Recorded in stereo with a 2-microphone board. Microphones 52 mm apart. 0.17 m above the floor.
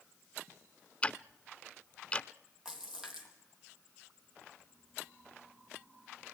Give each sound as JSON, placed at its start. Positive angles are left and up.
{"t": 1.0, "sound": "ticking", "side_deg": 25, "distance_m": 0.5}
{"t": 2.6, "sound": "a splash", "side_deg": -10, "distance_m": 3.5}